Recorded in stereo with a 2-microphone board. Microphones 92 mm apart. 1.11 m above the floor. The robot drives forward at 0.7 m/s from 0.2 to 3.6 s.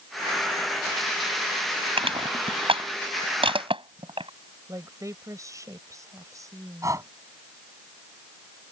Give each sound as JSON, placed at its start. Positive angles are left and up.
{"t": 2.0, "sound": "crushing", "side_deg": -85}
{"t": 4.7, "sound": "a woman speaking", "side_deg": -35}
{"t": 6.8, "sound": "breathing", "side_deg": -35}